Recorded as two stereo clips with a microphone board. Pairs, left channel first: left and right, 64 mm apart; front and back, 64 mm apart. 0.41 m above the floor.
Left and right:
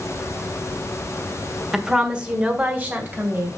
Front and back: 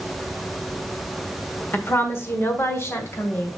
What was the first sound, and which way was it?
A woman speaking, 15° right.